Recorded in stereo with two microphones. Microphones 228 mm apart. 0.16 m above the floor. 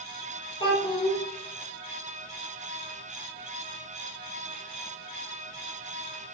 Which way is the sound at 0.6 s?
25° left (ahead or behind).